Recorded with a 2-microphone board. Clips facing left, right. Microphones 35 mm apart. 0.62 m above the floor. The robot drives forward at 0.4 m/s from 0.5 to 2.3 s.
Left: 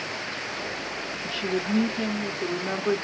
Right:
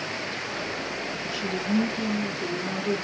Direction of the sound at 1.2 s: 30° left (ahead or behind).